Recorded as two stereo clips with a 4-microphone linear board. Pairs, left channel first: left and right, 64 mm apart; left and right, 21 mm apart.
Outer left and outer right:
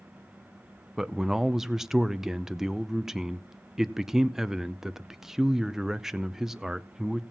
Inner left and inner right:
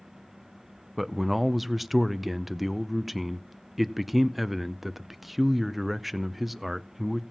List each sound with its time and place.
1.0 s a man speaking: 5° right (ahead or behind), 0.5 m